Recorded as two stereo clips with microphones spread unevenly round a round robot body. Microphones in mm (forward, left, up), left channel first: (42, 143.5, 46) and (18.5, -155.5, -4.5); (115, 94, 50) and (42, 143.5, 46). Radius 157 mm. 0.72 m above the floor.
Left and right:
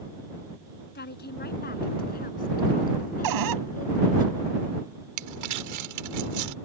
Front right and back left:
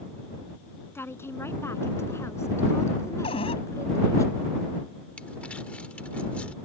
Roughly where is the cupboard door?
Right.